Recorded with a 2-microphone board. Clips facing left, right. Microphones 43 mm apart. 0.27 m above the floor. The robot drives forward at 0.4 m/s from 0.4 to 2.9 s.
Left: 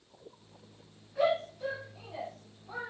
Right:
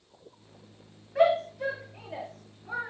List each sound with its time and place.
1.1 s a shout: 70° right (ahead or behind), 5 m; by 2.9 s 75° right (ahead or behind), 5 m